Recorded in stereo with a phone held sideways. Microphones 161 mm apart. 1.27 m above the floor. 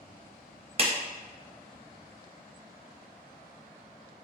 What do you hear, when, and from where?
0.8 s a clap: 35° right (ahead or behind), 0.8 m